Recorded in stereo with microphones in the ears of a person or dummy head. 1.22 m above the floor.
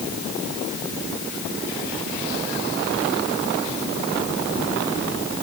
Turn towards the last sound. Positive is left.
No sound to turn to.